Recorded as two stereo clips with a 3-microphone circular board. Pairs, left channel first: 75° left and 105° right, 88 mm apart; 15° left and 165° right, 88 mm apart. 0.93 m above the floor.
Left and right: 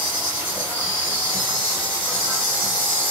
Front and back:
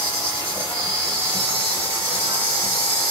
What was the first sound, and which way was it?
An insect, 175° right.